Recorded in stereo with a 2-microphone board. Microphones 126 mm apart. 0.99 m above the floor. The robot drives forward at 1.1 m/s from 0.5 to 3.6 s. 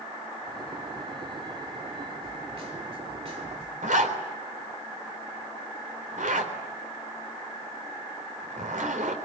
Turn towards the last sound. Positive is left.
turn(degrees=-80)